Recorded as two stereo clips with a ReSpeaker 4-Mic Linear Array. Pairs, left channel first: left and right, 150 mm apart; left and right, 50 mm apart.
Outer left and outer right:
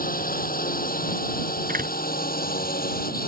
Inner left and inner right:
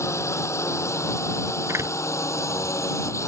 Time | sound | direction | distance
0.0 | a drone | 70° left (ahead or behind) | ?
1.7 | a door slam | 75° right (ahead or behind) | ?